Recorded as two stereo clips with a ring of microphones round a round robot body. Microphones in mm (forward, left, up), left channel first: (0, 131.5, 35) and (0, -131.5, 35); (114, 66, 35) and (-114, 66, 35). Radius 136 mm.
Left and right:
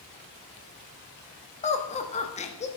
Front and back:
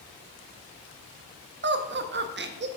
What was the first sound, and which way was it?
Laughter, 150° left.